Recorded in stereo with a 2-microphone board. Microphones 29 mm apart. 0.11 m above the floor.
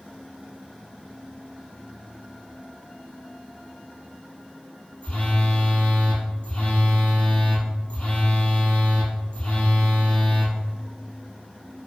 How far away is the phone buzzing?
About 1.2 m.